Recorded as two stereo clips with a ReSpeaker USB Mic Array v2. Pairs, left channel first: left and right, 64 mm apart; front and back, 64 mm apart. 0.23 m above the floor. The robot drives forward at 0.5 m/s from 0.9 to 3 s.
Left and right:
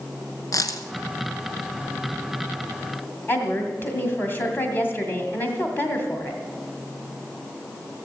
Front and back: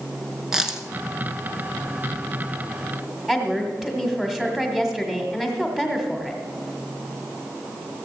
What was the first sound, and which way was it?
A dropped coin, 100° left.